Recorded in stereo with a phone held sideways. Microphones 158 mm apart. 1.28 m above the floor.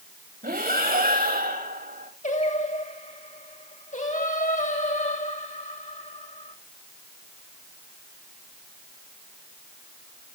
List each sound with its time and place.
0.4 s breathing: 70° right (ahead or behind), 2.5 m
2.2 s singing: 50° left (ahead or behind), 1.8 m